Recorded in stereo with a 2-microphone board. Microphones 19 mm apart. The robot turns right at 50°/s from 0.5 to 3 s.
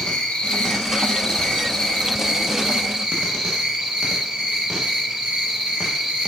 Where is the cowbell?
No cowbell in this recording.